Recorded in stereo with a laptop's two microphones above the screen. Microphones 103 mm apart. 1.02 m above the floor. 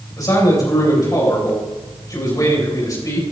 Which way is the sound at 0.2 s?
35° left (ahead or behind).